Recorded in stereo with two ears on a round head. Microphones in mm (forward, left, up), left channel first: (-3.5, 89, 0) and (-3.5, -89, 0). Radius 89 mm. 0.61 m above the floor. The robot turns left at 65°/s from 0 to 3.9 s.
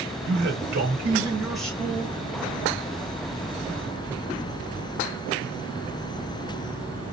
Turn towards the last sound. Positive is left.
turn(degrees=30)